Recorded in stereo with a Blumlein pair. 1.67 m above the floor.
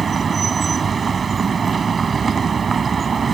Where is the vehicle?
20° right.